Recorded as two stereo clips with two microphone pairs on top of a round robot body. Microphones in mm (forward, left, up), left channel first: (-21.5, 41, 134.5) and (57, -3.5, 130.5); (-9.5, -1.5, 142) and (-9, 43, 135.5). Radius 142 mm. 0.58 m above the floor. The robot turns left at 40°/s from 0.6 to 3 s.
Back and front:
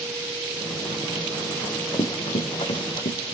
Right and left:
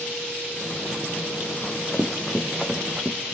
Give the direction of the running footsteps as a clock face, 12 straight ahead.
5 o'clock.